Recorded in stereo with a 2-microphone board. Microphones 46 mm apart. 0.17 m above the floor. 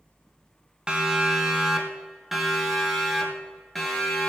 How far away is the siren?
About 2 m.